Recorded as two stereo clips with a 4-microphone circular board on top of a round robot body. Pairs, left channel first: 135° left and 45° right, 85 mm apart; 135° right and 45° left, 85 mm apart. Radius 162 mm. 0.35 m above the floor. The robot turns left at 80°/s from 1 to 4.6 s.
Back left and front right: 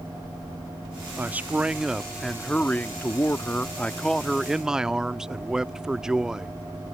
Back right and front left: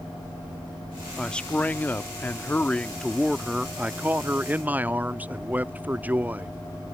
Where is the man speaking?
60° right; by 6.6 s 25° left.